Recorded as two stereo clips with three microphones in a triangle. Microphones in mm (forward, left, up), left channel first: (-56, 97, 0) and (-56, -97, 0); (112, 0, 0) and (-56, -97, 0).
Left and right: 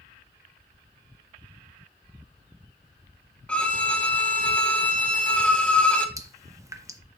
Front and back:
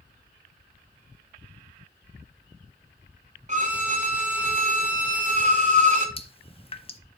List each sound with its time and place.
3.5 s a violin: 170° left, 1.1 m
6.2 s dripping: 20° right, 0.6 m